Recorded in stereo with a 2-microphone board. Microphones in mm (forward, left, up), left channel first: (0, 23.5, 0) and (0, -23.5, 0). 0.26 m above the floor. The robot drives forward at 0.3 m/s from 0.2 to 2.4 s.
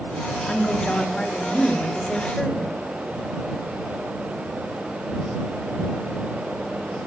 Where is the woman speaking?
20° left (ahead or behind), 1.5 m.